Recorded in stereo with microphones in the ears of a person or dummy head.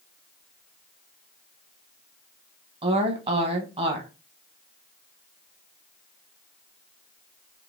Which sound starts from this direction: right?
A woman speaking, at 2.8 s.